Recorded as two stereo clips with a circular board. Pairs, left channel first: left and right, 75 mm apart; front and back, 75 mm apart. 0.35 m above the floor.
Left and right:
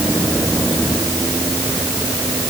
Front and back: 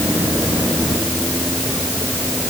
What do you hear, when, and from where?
Only background noise.